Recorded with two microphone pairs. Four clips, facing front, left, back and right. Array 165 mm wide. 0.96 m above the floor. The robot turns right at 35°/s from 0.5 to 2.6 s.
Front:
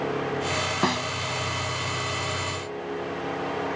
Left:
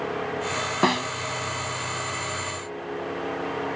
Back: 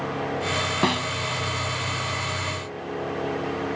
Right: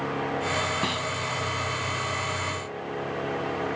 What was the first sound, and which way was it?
A snare drum, 110° left.